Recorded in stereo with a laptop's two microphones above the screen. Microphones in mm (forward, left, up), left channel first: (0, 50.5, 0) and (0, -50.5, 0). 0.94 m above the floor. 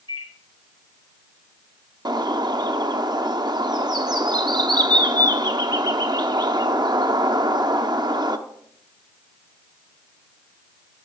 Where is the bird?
45° right (ahead or behind), 0.8 m.